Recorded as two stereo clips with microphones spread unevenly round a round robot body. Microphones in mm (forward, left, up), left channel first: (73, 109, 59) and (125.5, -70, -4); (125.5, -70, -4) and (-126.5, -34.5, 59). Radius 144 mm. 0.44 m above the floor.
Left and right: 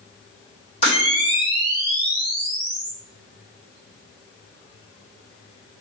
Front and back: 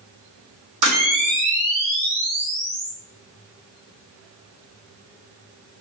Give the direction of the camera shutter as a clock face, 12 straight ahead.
6 o'clock.